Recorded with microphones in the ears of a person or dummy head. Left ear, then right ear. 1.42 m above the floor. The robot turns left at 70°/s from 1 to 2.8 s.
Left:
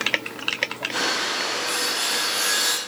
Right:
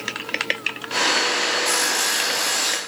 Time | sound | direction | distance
1.6 | sawing | 105° right | 1.1 m